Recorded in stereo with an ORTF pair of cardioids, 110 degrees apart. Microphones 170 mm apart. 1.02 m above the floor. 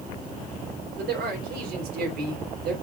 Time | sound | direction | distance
1.0 | a man speaking | 65° right | 3.5 m